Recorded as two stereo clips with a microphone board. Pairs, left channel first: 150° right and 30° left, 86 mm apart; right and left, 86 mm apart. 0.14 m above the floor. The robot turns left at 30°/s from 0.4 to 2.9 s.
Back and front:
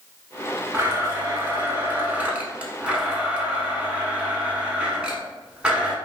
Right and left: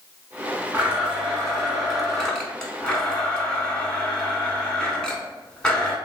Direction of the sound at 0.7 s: 40° left.